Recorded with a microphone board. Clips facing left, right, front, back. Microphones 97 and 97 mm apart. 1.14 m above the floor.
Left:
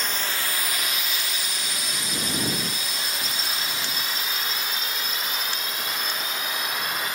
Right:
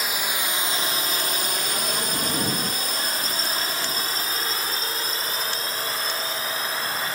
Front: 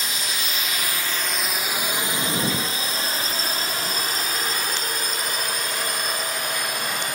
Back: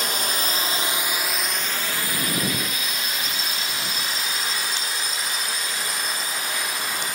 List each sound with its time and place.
0.0 s a drone: 170° right; by 7.2 s 35° right